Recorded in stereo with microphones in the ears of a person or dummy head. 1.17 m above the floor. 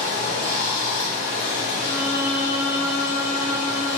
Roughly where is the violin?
Centre.